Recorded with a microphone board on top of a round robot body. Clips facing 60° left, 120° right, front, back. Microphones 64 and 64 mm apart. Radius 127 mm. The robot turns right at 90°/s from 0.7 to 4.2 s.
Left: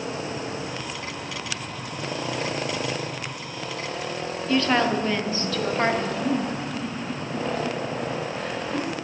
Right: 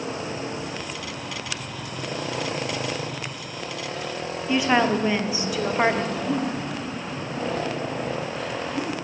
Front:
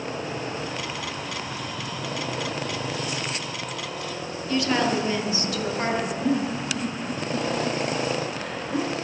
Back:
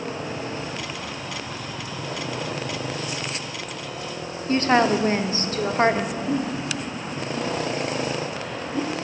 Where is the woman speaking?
170° left, 1.2 m.